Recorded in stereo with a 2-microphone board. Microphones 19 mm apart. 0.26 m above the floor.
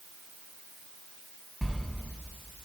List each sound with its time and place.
1.6 s a sliding door: 5° right (ahead or behind), 0.9 m